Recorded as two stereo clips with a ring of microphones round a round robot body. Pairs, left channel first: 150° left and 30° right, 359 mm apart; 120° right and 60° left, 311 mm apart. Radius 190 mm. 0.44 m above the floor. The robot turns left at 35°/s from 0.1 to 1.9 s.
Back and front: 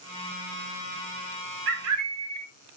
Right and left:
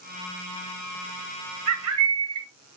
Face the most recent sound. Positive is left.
turn(degrees=20)